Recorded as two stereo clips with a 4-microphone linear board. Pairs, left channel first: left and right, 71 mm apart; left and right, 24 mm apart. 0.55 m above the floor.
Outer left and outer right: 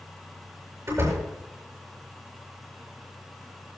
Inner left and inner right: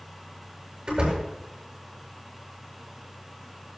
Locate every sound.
0.9 s a door slam: 45° right (ahead or behind), 8.5 m